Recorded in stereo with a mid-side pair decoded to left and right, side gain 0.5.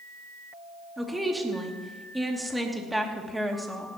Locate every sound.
1.0 s a woman speaking: 10° right, 2.5 m